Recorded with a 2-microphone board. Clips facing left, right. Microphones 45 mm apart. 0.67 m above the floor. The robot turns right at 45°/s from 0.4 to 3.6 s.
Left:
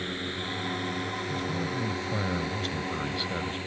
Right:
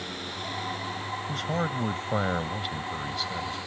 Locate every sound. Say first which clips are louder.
0.0 s a drone: left 2 dB; 25° left (ahead or behind); by 3.7 s 30° left (ahead or behind)
1.3 s a man speaking: right 5 dB; 70° right; by 3.6 s 30° left